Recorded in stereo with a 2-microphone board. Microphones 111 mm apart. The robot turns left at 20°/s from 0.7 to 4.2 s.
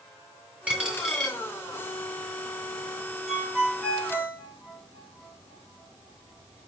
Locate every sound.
0.7 s a dropped coin: 10° right (ahead or behind), 2.5 m; by 1.4 s centre (ahead or behind), 2.5 m
3.3 s a ringtone: centre (ahead or behind), 5 m; by 6.7 s 20° left (ahead or behind), 5 m